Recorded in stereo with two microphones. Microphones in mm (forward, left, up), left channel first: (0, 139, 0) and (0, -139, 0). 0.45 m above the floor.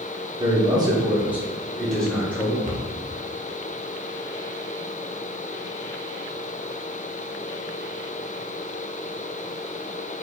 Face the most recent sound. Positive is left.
turn(degrees=-25)  # may be behind; listen again after turning